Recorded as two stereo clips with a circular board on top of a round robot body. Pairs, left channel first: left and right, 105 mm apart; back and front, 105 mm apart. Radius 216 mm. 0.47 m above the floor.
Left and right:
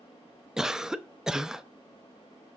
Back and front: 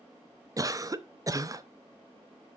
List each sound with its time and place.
0.6 s a cough: 10° right, 0.9 m